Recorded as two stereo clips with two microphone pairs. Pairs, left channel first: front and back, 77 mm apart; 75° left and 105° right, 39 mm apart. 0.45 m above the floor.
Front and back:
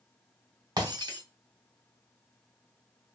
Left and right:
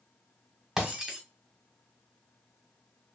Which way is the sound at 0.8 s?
Straight behind.